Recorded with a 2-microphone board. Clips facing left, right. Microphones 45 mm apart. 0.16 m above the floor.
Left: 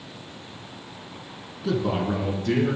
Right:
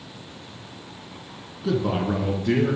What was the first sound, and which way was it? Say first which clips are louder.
A man speaking: right 1 dB; 5° right (ahead or behind).